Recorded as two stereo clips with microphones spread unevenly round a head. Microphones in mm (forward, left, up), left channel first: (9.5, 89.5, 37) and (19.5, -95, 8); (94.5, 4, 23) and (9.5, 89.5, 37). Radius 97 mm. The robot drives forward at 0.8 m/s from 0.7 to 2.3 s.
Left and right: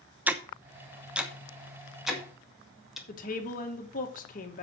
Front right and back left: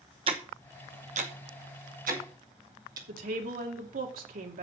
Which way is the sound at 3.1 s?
145° left.